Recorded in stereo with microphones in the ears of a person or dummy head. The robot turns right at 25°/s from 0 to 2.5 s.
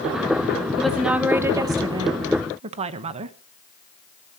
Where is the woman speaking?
Straight behind, 1.1 m; by 3.4 s 140° right, 1.1 m.